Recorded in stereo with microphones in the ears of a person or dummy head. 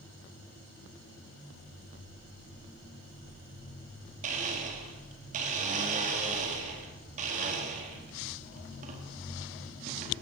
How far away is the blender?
About 4.5 m.